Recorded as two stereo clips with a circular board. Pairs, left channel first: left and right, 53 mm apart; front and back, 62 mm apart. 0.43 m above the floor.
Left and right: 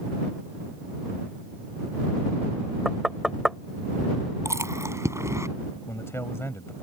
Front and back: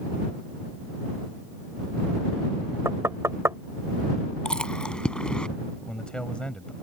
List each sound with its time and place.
2.9 s knocking: 175° right
4.5 s chewing: 75° right
5.8 s a man speaking: 70° left